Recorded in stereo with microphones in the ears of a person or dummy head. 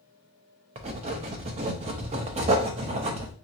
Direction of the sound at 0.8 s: 30° right (ahead or behind).